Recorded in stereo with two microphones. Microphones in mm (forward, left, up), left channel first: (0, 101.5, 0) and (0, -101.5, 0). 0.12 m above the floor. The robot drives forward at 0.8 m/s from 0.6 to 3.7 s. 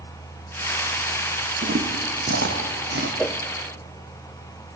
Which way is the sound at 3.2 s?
5° left (ahead or behind).